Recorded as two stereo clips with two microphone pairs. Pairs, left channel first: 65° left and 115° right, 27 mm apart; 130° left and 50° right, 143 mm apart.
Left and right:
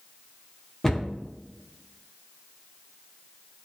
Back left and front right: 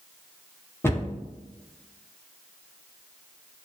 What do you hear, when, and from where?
0.8 s a cupboard door: 120° left, 0.6 m